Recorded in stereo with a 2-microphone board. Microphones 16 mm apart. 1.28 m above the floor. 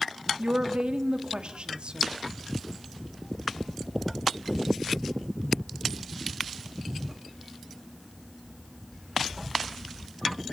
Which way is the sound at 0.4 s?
85° right.